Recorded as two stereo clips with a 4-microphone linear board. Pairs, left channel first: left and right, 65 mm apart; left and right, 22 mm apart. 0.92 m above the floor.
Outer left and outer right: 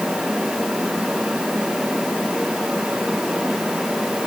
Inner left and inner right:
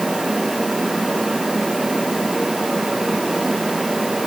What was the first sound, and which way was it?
Only background noise.